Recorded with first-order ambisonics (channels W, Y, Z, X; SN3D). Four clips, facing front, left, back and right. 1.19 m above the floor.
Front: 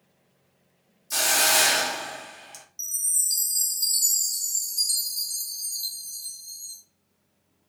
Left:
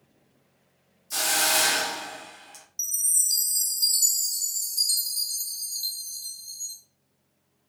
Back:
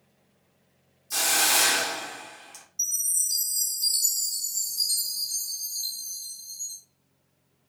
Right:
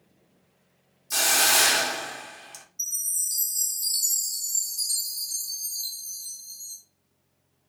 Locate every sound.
1.1 s a hiss: 55° right, 0.6 m
2.8 s a chime: 75° left, 1.4 m